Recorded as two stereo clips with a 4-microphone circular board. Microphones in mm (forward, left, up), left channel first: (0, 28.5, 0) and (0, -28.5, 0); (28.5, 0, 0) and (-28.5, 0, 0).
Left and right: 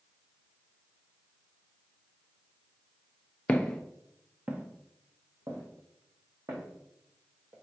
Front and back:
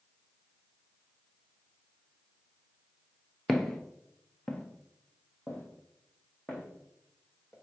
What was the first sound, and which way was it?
Footsteps, 80° left.